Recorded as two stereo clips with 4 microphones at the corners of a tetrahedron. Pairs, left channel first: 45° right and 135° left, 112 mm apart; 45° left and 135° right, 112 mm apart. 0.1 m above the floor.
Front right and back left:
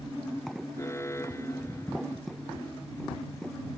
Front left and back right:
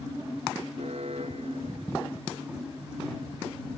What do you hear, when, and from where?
0.7 s an alarm: 110° right